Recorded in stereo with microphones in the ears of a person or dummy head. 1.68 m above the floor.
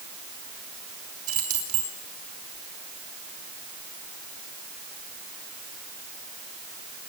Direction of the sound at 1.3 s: 40° right (ahead or behind).